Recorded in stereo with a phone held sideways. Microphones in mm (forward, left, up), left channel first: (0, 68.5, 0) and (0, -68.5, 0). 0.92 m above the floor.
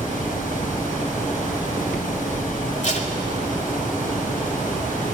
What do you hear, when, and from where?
0.0 s a fan: 85° left, 5 m
2.8 s tape being pulled: 60° left (ahead or behind), 2.5 m